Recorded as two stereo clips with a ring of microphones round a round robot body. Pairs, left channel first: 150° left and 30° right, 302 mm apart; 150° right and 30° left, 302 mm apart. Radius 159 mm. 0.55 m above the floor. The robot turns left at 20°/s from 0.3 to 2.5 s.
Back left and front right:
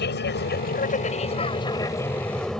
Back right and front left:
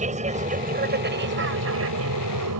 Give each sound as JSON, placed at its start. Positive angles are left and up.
{"t": 0.0, "sound": "an aircraft", "azimuth_deg": 95}